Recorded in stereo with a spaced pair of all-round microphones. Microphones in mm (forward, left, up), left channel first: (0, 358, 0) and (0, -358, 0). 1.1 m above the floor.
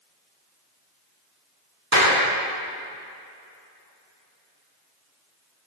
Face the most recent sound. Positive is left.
turn(degrees=-25)  # may be behind; listen again after turning